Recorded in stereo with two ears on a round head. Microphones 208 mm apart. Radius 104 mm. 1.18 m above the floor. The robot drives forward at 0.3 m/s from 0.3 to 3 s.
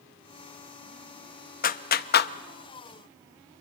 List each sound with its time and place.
1.6 s a clap: 35° left (ahead or behind), 0.9 m; by 2.3 s 45° left (ahead or behind), 0.7 m